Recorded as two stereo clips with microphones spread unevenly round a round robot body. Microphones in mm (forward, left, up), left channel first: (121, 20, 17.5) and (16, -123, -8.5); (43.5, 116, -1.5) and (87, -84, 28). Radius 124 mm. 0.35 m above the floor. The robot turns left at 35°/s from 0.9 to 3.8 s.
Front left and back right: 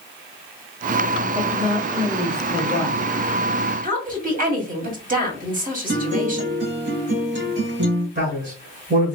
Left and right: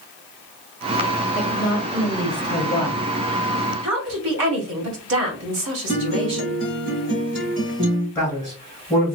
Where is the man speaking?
Straight behind, 2 m.